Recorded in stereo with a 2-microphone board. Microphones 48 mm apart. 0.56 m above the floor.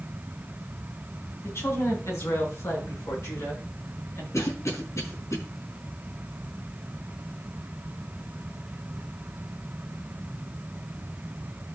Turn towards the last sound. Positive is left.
turn(degrees=75)  # may be behind; listen again after turning